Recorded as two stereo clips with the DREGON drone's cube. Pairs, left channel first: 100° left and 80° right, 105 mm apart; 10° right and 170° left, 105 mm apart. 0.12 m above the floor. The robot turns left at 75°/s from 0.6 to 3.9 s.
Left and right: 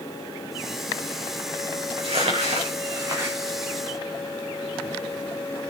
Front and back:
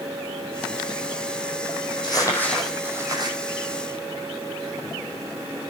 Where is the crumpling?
50° right, 5.5 m; by 3.4 s 155° right, 5.5 m.